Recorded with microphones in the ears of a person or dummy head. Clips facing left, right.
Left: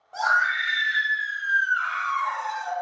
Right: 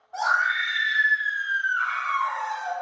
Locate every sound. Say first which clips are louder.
0.1 s a scream: even; 60° left (ahead or behind), 2.0 m; by 2.7 s 55° left (ahead or behind), 1.9 m